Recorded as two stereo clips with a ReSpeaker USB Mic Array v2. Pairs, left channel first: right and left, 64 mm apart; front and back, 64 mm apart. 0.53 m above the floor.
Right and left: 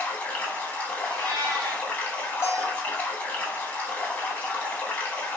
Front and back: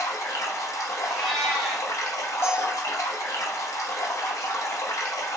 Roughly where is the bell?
Ahead right.